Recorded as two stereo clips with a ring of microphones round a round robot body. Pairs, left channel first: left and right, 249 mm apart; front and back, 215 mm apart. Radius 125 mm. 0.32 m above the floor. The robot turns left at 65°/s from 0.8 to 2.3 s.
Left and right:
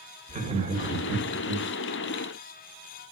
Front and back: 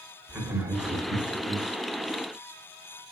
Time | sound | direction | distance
0.3 | laughter | 110° right | 0.9 m